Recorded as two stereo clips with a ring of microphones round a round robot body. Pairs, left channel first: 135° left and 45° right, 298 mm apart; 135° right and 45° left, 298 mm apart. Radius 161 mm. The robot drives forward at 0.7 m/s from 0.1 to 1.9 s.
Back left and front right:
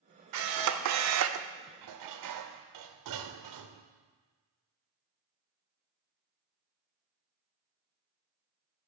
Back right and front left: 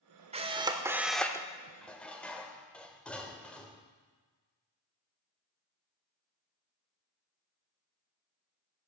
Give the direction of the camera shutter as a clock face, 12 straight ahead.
1 o'clock.